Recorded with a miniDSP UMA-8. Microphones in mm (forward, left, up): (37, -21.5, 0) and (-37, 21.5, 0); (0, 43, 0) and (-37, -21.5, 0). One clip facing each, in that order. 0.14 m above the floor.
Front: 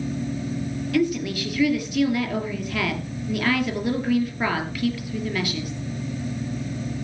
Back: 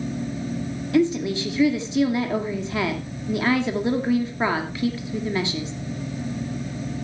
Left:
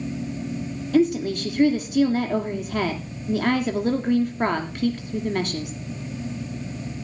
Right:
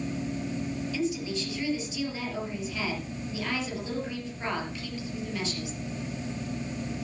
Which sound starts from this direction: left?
A woman speaking, at 0.9 s.